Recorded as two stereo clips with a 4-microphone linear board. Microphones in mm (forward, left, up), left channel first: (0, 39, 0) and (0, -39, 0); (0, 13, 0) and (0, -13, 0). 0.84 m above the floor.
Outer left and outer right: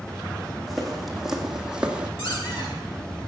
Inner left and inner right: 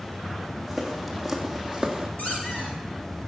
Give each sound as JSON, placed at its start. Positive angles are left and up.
{"t": 0.7, "sound": "footsteps", "side_deg": 0, "distance_m": 3.5}
{"t": 2.2, "sound": "a squeak", "side_deg": 80, "distance_m": 7.5}